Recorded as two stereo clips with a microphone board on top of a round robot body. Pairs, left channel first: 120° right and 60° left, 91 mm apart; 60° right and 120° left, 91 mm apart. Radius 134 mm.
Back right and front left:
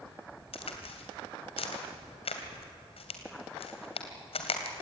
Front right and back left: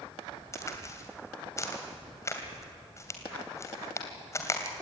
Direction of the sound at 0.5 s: 120° right.